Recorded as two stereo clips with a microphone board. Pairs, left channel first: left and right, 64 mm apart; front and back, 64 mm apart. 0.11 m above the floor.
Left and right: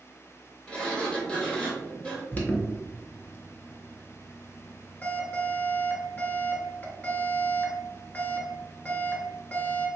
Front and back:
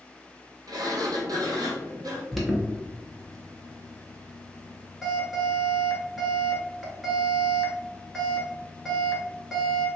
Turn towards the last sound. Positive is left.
turn(degrees=90)